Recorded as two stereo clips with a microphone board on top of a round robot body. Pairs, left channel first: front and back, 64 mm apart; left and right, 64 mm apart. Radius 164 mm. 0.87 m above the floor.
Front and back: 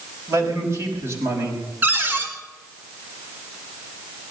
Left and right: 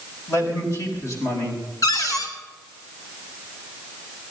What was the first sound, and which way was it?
A man speaking, 130° left.